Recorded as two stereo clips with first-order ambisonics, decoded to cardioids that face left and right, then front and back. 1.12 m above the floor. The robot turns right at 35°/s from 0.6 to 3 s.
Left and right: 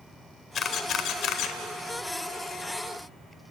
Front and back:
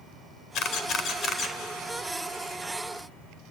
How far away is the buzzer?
No buzzer in this recording.